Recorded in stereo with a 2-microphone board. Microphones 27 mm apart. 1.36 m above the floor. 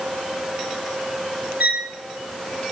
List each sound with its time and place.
1.6 s a violin: 75° right (ahead or behind), 5 m